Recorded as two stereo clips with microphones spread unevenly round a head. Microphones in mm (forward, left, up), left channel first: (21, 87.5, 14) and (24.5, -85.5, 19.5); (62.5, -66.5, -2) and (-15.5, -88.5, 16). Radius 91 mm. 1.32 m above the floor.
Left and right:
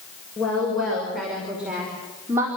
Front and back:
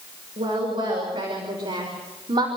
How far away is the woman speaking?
About 6.5 m.